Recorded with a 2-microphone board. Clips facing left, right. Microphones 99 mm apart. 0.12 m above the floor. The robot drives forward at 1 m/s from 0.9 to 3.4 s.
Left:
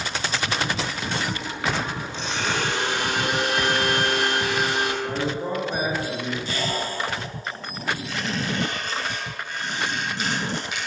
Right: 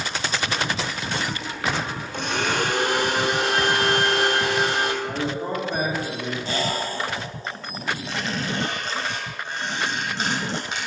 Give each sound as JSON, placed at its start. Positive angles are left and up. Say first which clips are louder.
{"t": 2.1, "sound": "a blender", "louder": "right 3 dB", "side_deg": -60, "distance_m": 1.7}
{"t": 5.0, "sound": "a man speaking", "louder": "even", "side_deg": 15, "distance_m": 3.5}
{"t": 6.5, "sound": "a squeak", "louder": "right 2 dB", "side_deg": -35, "distance_m": 4.0}